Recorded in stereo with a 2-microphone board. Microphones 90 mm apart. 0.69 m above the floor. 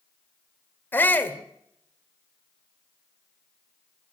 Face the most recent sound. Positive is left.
turn(degrees=20)  # may be behind; listen again after turning